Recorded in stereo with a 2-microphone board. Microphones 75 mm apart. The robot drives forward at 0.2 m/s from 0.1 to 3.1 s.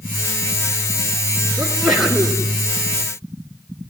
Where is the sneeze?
5° left (ahead or behind), 2 m.